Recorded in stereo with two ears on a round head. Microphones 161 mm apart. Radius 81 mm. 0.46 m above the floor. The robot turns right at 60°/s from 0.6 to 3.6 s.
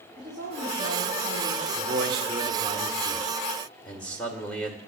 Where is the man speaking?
100° right, 1.8 m; by 4.8 s 10° left, 1.8 m.